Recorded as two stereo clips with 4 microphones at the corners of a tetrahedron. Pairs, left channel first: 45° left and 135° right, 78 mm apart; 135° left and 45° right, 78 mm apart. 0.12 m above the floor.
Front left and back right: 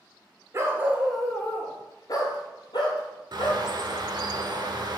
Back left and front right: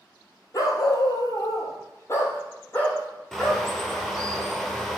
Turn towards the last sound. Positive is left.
turn(degrees=-140)